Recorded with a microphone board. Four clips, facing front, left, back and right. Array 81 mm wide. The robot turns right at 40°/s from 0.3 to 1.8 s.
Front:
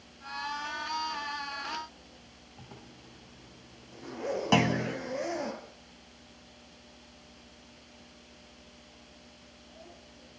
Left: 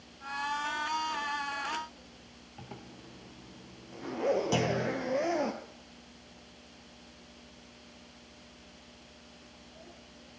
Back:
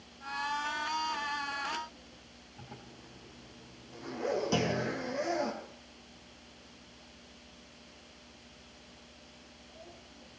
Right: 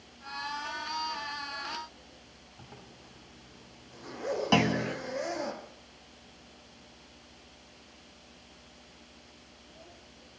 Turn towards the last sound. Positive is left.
turn(degrees=-30)